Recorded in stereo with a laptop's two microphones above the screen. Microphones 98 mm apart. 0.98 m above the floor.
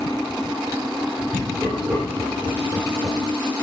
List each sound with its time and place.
1.3 s laughter: 10° right (ahead or behind), 3.5 m; by 3.2 s 55° right (ahead or behind), 3.5 m